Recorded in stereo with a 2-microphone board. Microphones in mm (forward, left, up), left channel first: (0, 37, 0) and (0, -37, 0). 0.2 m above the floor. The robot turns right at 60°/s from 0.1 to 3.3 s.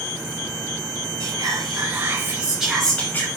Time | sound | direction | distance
1.2 | whispering | 90° right | 3.5 m